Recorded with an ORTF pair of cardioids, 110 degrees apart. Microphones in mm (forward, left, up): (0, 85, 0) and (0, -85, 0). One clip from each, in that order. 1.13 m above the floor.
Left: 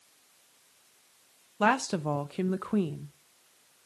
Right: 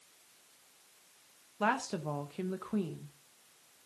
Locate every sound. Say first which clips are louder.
1.6 s a woman speaking: left 6 dB; 35° left, 0.7 m